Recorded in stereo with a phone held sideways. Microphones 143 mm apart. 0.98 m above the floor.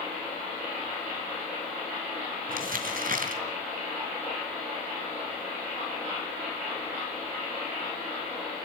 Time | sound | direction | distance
2.5 | crumpling | 75° right (ahead or behind) | 2.5 m